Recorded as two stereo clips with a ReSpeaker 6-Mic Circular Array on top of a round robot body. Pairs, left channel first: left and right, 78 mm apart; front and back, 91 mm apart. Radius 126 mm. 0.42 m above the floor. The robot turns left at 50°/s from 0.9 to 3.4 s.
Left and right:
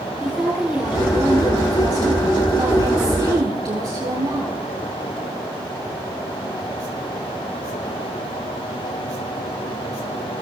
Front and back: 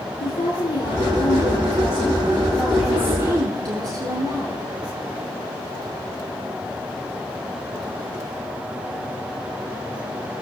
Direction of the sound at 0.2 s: 5° right.